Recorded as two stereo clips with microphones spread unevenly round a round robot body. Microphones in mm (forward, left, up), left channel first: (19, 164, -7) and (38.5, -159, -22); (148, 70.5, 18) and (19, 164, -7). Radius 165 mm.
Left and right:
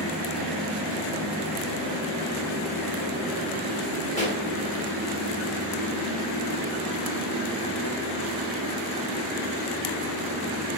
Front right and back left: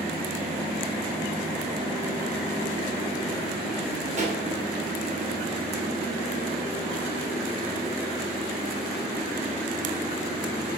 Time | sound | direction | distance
4.2 | a pop | 160° left | 1.5 m